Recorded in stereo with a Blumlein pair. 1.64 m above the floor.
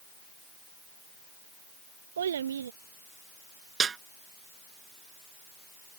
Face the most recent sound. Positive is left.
turn(degrees=-20)